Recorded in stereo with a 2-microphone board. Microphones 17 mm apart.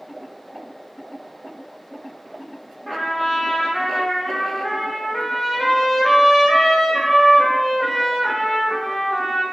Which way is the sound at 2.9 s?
5° left (ahead or behind).